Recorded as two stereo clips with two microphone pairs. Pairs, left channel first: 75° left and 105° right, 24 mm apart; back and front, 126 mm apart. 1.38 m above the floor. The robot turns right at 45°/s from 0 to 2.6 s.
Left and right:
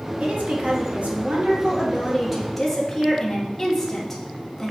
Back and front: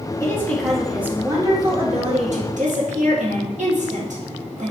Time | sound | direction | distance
0.2 | a woman speaking | 115° right | 1.6 m